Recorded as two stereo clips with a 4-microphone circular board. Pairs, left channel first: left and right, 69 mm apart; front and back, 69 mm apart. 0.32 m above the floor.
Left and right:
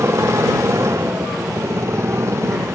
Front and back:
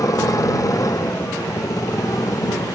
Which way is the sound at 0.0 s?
40° right.